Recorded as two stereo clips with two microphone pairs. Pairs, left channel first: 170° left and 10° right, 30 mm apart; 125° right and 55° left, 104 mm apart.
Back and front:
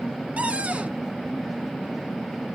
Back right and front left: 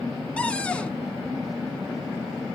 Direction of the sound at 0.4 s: 50° right.